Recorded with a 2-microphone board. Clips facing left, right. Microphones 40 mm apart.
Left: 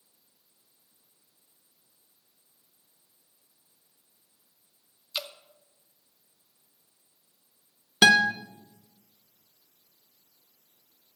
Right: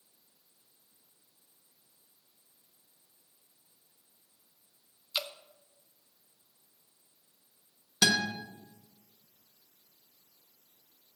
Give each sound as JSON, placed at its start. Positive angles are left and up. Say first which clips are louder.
{"t": 5.1, "sound": "dripping", "louder": "even", "side_deg": -5, "distance_m": 0.6}
{"t": 8.0, "sound": "a guitar", "louder": "left 9 dB", "side_deg": 45, "distance_m": 0.7}